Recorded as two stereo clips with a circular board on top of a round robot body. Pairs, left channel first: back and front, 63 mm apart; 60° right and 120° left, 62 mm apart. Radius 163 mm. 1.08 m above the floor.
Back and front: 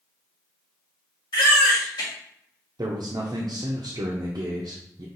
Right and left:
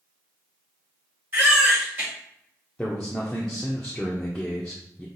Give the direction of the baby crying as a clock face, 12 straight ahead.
6 o'clock.